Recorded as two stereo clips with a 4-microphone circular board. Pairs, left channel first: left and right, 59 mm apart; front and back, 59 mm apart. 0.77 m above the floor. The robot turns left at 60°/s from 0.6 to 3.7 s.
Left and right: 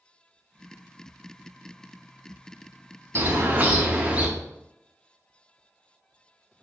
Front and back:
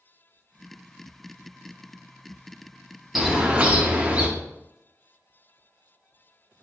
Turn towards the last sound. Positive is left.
turn(degrees=-135)